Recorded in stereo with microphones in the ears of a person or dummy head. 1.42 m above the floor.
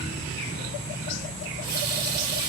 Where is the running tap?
50° right (ahead or behind), 3.5 m.